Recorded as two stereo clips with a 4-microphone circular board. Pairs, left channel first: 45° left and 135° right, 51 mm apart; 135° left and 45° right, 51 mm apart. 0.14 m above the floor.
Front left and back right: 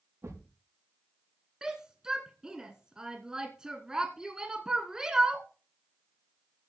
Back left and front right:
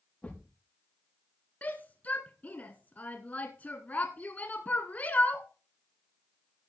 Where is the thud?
160° right, 5.5 m.